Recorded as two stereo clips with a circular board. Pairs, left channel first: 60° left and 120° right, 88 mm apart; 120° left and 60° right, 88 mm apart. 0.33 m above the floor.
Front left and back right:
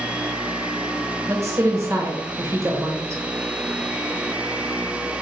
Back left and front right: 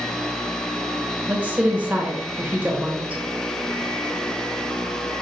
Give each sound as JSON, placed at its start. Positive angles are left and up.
{"t": 1.3, "sound": "a woman speaking", "azimuth_deg": -115, "distance_m": 1.0}